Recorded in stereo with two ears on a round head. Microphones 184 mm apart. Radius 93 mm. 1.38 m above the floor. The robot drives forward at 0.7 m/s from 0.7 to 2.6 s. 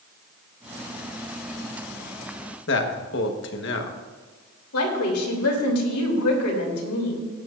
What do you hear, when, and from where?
2.7 s a man speaking: 60° left (ahead or behind), 1.3 m
4.7 s a woman speaking: 90° left, 3 m